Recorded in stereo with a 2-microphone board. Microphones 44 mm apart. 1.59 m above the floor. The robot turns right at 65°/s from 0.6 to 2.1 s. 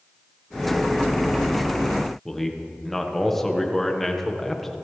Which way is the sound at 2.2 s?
5° left (ahead or behind).